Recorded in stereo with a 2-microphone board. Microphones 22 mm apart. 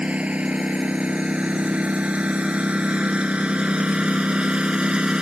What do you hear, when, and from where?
0.0 s a lawn mower: 80° right; by 5.2 s 45° right (ahead or behind)